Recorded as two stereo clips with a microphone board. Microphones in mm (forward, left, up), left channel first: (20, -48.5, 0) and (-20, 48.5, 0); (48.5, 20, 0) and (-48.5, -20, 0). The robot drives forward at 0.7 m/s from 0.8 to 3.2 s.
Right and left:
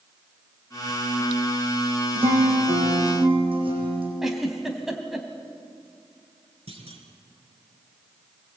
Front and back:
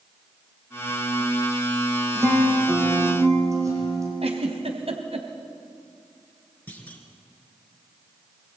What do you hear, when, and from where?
2.1 s a guitar: 135° left, 6.5 m; by 4.1 s 140° left, 7 m
4.2 s a giggle: 160° right, 2.5 m
6.7 s a clunk: 95° left, 3.5 m